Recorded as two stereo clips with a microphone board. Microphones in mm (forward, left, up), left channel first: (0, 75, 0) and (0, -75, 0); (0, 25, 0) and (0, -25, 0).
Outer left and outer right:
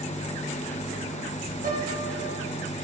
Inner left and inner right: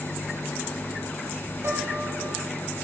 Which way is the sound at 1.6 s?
65° right (ahead or behind).